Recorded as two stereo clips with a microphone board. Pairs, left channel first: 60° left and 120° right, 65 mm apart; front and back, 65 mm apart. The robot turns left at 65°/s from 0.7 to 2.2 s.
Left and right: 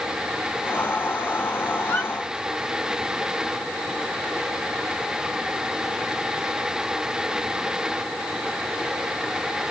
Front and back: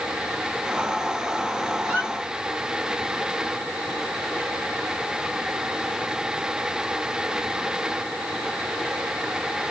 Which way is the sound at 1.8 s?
120° left.